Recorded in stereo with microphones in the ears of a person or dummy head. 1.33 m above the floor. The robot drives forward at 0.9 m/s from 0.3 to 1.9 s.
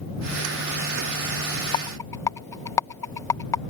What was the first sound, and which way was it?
A rattle, 25° left (ahead or behind).